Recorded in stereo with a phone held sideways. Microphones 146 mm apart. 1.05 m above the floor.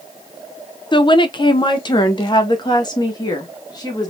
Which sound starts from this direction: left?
A woman speaking, at 0.9 s.